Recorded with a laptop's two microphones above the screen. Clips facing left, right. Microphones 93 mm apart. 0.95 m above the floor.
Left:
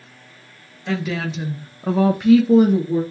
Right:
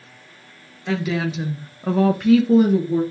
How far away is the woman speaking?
About 0.8 m.